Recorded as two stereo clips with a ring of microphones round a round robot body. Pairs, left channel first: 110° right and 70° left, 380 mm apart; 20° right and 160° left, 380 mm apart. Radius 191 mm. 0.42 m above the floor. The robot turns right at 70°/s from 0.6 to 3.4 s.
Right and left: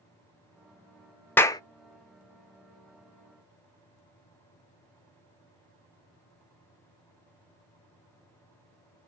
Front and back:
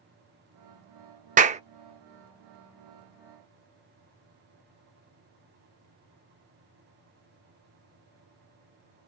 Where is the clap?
175° left, 0.5 m; by 1.6 s 170° right, 0.5 m.